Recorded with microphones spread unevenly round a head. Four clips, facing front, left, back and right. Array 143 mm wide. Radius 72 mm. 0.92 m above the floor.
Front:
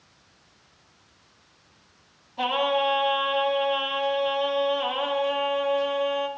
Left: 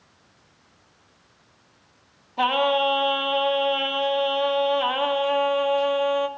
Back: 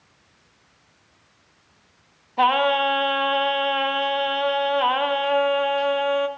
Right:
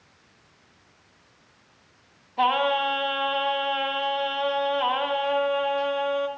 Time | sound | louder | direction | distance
2.4 | singing | left 1 dB, back 5 dB | 175° left | 0.8 m